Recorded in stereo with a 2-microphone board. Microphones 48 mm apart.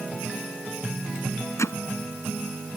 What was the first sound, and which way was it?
Hammering, 80° left.